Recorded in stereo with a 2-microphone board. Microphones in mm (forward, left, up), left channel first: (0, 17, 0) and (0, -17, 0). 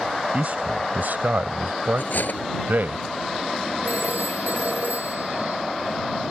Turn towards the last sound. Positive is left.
turn(degrees=-60)  # may be behind; listen again after turning